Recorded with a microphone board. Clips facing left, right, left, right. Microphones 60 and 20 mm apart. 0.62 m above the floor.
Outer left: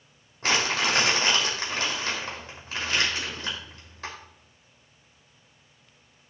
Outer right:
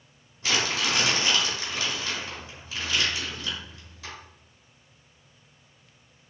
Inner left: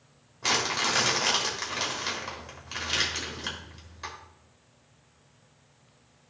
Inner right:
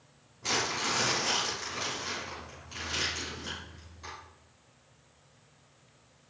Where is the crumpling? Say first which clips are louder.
Outer left 2 dB, inner left 4 dB; 50° left (ahead or behind), 3 m.